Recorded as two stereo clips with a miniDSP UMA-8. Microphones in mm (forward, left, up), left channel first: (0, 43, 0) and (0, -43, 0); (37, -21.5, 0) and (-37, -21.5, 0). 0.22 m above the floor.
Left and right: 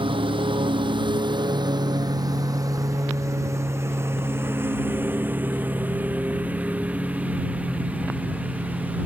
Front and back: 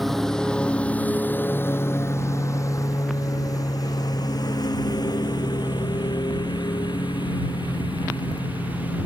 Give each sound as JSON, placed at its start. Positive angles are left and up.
{"t": 0.0, "sound": "a lawn mower", "azimuth_deg": -90}